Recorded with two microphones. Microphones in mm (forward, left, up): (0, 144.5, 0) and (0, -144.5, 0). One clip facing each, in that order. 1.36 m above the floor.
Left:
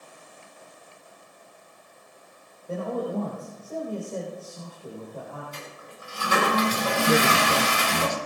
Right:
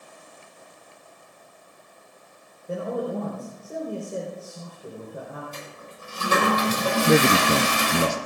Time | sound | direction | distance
2.7 | a man speaking | 20° right (ahead or behind) | 4.5 m
5.5 | a toilet flushing | 55° right (ahead or behind) | 6.5 m
7.1 | a man speaking | 35° right (ahead or behind) | 0.5 m